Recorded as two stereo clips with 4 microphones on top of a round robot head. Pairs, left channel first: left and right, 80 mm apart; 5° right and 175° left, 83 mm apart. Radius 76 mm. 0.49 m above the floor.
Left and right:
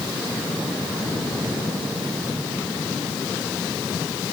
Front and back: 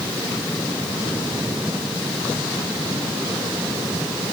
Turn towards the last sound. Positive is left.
No sound to turn to.